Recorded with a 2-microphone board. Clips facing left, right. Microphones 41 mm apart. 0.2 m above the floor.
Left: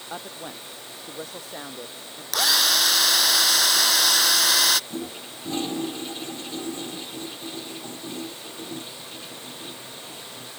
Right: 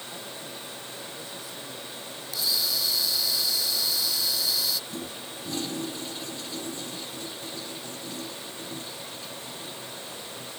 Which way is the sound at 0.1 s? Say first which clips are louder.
Left 7 dB; 55° left (ahead or behind).